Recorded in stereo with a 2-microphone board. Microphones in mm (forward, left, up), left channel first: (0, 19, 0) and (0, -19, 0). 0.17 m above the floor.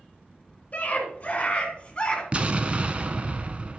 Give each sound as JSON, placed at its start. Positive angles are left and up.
{"t": 0.7, "sound": "a scream", "side_deg": 35, "distance_m": 2.0}
{"t": 2.3, "sound": "an explosion", "side_deg": -35, "distance_m": 0.6}